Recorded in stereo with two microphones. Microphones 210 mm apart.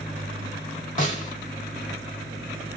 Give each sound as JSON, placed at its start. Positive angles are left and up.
{"t": 1.0, "sound": "a snare drum", "side_deg": 35, "distance_m": 1.1}